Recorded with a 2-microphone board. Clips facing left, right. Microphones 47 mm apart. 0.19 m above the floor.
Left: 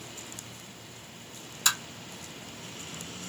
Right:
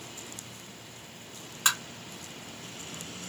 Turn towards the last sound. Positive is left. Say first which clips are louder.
# right 1 dB
turn(degrees=-50)  # may be behind; listen again after turning